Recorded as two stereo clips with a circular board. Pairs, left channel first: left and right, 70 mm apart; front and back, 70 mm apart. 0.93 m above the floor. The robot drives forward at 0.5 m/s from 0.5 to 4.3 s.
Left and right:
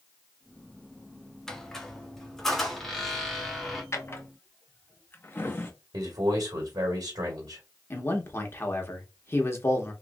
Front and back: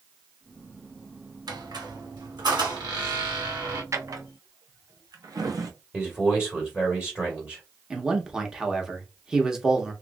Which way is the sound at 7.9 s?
105° left.